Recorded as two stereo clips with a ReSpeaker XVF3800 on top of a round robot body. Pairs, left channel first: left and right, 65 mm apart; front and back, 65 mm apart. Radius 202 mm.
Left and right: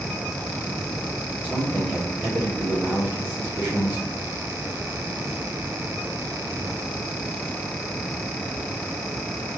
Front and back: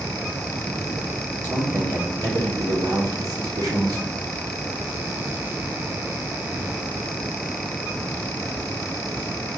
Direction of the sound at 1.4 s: 155° right.